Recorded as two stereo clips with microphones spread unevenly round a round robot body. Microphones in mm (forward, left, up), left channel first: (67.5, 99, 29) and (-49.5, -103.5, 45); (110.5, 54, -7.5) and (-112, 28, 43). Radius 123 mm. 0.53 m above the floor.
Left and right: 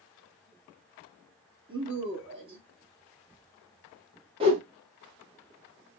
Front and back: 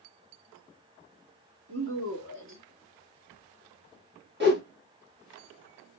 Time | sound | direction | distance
1.7 | a woman speaking | straight behind | 1.2 m
4.4 | a whoosh | 175° right | 1.1 m